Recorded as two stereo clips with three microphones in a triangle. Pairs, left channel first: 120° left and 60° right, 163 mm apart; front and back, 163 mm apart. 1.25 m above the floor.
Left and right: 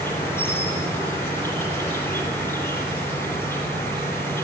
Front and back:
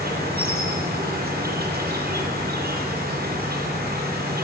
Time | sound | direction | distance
0.0 | an insect | 165° right | 7 m